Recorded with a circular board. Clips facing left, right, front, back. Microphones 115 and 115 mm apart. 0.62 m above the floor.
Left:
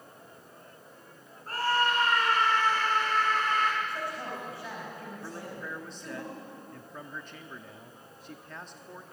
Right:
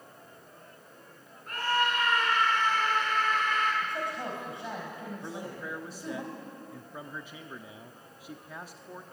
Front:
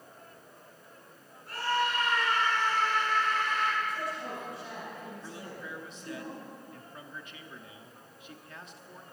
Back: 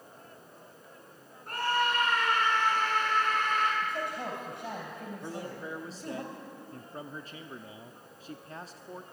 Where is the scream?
145° left, 6.5 m.